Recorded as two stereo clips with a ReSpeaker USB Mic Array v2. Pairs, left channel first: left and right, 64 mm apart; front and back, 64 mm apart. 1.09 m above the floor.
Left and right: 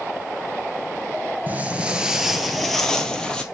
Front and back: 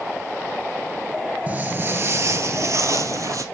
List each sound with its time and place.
1.5 s footsteps: 135° right, 1.3 m; by 3.4 s 160° left, 2 m